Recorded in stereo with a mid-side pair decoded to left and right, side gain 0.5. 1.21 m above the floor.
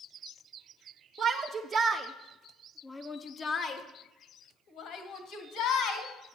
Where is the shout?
60° right, 1.0 m; by 6.1 s 75° left, 2 m.